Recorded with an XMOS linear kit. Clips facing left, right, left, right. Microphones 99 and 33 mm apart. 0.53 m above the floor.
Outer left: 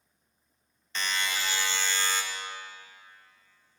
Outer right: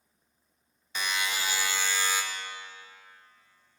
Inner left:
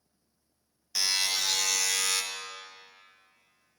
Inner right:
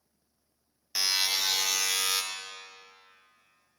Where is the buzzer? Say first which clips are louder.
Even, inner right 1 dB; 10° right (ahead or behind), 0.6 m.